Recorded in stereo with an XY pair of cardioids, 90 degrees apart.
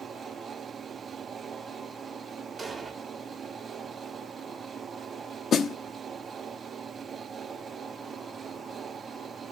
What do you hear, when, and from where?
0.0 s a fan: 50° right, 0.9 m
2.6 s an explosion: 25° right, 2.5 m
5.5 s a snare drum: 70° left, 0.9 m